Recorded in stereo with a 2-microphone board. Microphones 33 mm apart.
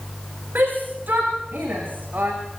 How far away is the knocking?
I don't hear knocking.